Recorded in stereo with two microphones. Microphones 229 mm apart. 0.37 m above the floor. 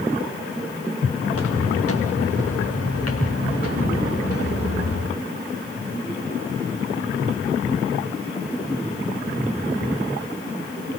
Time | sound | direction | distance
1.3 | footsteps | 75° left (ahead or behind) | 3 m